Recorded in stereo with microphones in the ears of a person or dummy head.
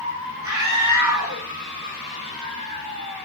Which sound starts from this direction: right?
A scream, at 0.4 s.